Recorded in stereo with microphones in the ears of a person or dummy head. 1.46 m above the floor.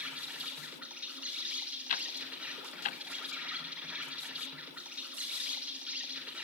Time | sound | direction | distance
0.0 | an insect | 10° right (ahead or behind) | 4 m
1.9 | ticking | 45° left (ahead or behind) | 0.8 m